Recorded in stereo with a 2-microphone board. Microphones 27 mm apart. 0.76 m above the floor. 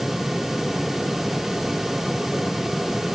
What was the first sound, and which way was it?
Only background noise.